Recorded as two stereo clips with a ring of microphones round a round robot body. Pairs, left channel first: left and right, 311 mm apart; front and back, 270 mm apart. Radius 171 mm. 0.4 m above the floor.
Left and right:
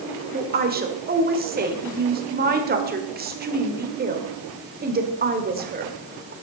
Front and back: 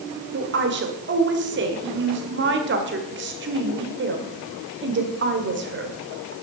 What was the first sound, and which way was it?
A woman speaking, 145° right.